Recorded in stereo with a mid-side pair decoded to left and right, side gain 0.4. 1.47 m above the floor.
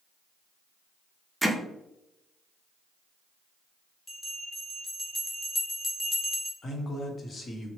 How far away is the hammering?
About 0.6 m.